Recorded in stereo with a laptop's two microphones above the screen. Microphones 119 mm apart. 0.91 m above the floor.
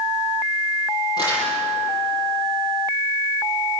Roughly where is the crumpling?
Left.